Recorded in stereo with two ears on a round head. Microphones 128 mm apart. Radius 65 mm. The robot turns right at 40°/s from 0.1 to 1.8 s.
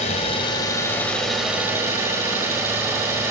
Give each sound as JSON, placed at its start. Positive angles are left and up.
{"t": 0.0, "sound": "an engine running", "azimuth_deg": 130, "distance_m": 4.5}